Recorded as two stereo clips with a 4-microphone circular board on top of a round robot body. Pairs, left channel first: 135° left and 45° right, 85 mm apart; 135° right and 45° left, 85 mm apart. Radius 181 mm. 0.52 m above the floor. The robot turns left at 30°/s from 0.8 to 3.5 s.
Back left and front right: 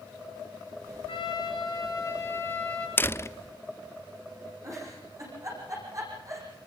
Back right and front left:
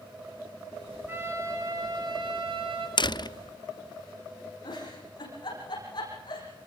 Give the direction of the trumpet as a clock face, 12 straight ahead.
8 o'clock.